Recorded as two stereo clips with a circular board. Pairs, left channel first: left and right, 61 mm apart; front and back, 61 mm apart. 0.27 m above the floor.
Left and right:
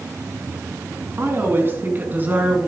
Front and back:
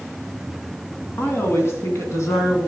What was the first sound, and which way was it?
A woman speaking, 45° right.